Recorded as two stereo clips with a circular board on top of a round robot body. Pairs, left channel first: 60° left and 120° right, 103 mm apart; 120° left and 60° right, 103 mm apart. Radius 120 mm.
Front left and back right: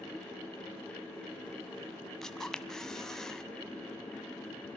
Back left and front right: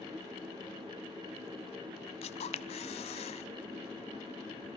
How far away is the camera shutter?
About 0.7 m.